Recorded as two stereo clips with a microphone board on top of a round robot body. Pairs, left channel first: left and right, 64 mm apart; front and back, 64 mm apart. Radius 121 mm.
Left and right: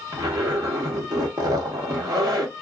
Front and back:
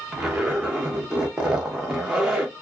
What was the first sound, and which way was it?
A zipper, 100° right.